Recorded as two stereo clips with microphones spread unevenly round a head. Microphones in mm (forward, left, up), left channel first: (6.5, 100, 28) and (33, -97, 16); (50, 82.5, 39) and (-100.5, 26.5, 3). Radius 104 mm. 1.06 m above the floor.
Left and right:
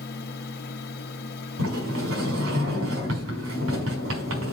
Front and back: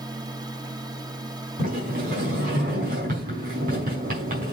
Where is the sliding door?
110° right, 5 m.